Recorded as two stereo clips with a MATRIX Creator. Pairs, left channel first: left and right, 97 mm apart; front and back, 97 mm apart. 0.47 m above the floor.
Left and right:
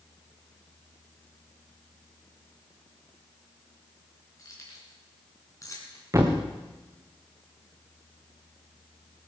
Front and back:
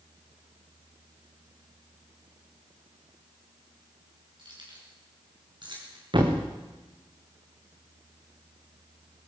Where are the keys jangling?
145° left, 5 m.